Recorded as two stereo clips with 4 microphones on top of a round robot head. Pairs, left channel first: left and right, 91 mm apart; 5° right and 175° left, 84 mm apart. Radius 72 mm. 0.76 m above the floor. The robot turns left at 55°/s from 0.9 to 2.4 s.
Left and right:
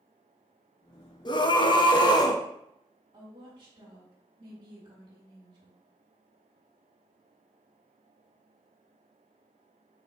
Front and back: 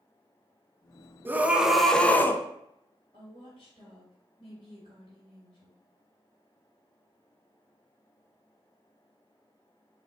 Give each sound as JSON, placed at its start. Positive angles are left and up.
{"t": 1.2, "sound": "a scream", "azimuth_deg": 115, "distance_m": 0.7}
{"t": 3.1, "sound": "a woman speaking", "azimuth_deg": -40, "distance_m": 2.0}